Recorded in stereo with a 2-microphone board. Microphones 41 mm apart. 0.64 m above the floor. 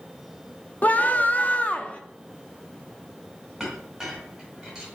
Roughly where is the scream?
Left.